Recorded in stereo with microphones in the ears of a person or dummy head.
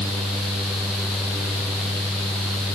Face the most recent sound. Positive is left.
No sound to turn to.